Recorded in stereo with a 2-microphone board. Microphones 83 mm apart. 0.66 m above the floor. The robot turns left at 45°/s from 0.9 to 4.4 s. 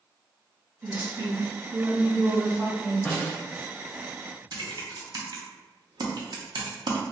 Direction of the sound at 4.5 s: 65° right (ahead or behind).